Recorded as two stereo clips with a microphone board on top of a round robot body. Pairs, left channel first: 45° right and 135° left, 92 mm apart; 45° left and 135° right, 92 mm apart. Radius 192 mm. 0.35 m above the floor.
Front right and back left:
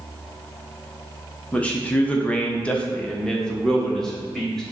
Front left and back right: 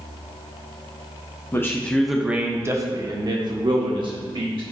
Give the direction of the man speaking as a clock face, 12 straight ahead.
11 o'clock.